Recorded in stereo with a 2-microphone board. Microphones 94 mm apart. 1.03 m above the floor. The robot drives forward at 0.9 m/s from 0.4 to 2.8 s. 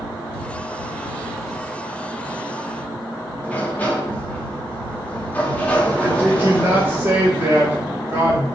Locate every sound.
3.4 s a sliding door: 20° left (ahead or behind), 1.6 m
6.0 s a woman speaking: 25° right (ahead or behind), 1.9 m